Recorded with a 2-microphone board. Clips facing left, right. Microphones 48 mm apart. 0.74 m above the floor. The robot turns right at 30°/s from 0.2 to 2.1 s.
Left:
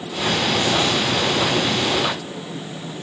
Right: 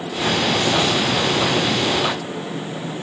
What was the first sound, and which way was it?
Only background noise.